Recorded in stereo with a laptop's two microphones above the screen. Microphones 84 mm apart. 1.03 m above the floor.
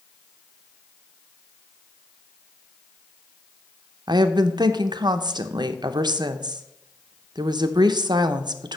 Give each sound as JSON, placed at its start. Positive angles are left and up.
{"t": 4.1, "sound": "a woman speaking", "side_deg": -65, "distance_m": 0.6}